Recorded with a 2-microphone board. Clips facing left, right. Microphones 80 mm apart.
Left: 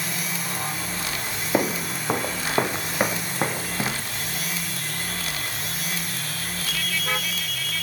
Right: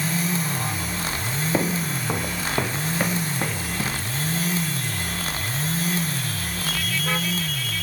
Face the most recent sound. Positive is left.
turn(degrees=25)  # may be behind; listen again after turning